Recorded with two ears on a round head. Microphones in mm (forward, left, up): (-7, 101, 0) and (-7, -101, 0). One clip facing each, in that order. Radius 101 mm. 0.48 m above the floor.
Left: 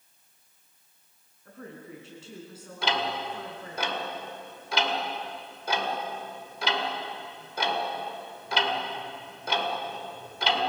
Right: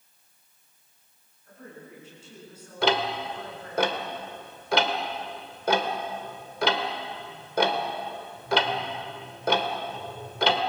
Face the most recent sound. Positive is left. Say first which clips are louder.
# right 5 dB
turn(degrees=-45)  # may be behind; listen again after turning